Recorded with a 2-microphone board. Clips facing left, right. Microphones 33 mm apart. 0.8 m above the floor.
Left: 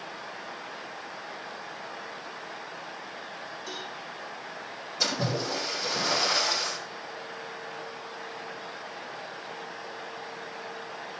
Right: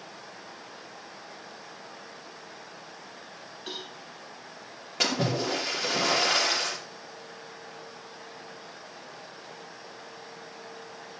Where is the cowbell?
60° right (ahead or behind), 6 m.